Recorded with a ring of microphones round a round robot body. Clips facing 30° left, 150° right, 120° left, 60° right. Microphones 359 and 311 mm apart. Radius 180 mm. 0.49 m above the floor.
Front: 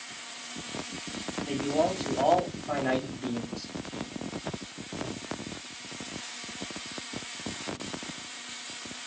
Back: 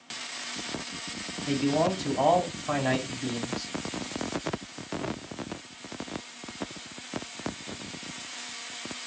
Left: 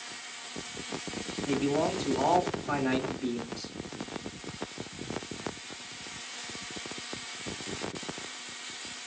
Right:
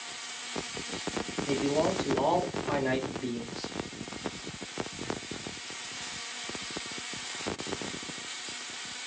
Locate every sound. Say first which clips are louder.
1.5 s a man speaking: back 3 dB, even; 170° left, 1.2 m